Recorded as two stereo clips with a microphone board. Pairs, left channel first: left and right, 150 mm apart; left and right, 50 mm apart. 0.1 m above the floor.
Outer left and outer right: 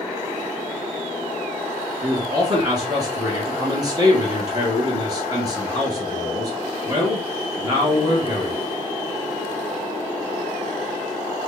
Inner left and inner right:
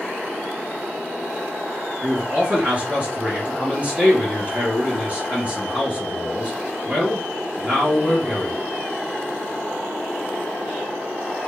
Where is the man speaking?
25° right (ahead or behind), 2 m.